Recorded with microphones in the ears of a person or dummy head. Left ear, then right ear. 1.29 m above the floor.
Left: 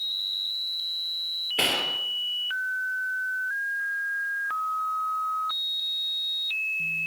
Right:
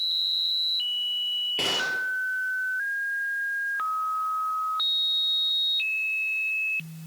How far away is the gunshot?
About 5.5 m.